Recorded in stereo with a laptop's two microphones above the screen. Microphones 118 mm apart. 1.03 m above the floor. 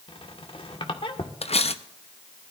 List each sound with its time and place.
0.1 s a squeak: 50° left (ahead or behind), 1.5 m
1.4 s cutlery clinking: 60° left (ahead or behind), 0.5 m